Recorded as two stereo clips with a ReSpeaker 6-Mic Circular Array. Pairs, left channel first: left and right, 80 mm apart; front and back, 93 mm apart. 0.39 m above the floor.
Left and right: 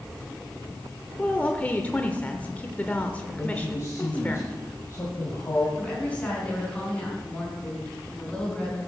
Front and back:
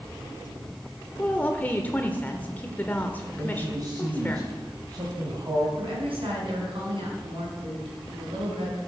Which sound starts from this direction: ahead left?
A woman speaking, at 1.2 s.